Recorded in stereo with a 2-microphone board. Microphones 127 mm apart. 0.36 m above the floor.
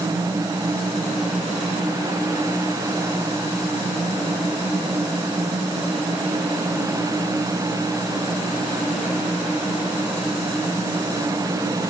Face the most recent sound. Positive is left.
No sound to turn to.